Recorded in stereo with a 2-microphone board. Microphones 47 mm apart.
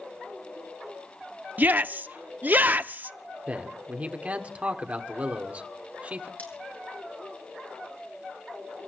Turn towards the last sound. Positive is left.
turn(degrees=35)  # may be behind; listen again after turning